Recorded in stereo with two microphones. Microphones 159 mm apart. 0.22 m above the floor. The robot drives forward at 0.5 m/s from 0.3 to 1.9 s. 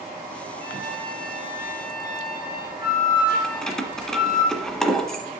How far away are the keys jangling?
About 1.2 m.